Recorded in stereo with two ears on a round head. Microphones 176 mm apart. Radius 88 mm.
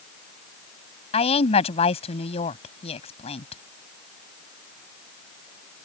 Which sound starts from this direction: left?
A woman speaking, at 1.1 s.